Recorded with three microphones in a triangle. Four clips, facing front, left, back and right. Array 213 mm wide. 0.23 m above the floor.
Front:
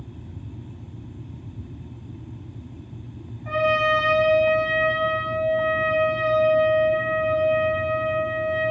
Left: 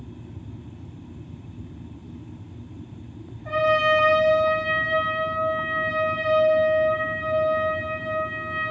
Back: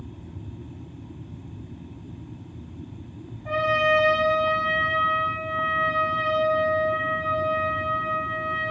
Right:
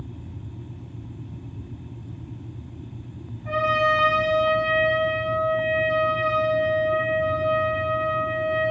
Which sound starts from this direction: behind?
A trumpet, at 3.5 s.